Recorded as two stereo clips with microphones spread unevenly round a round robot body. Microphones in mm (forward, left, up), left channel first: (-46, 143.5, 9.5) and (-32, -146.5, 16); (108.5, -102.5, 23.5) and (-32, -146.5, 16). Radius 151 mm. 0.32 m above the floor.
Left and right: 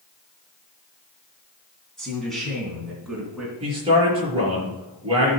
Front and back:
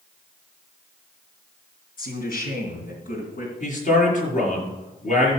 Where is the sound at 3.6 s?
15° right, 5.5 m.